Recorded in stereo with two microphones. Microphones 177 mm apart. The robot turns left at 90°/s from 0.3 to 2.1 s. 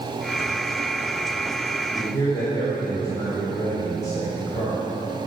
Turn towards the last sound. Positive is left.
turn(degrees=20)  # may be behind; listen again after turning